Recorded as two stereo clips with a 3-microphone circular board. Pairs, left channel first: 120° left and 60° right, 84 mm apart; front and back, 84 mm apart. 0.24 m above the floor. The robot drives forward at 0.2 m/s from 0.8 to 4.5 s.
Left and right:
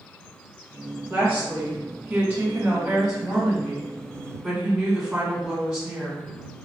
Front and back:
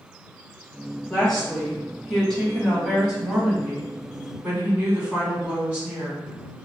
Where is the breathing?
I don't hear breathing.